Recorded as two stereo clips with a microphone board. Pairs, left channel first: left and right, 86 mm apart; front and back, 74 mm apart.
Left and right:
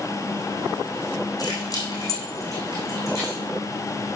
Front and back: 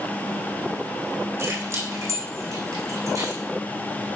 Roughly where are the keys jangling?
Behind left.